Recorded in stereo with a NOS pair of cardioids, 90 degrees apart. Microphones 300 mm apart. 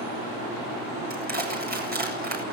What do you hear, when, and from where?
1.1 s crushing: 30° right, 8 m